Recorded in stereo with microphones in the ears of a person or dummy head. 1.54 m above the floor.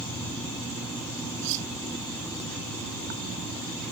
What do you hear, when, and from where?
1.4 s cutlery clinking: 70° right (ahead or behind)